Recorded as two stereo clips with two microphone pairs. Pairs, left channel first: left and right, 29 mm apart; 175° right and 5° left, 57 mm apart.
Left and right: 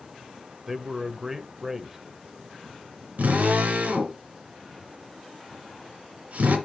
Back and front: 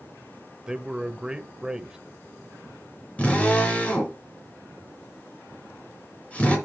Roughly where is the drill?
Right.